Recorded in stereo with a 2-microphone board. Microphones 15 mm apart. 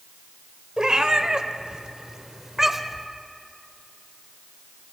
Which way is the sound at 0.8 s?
45° right (ahead or behind).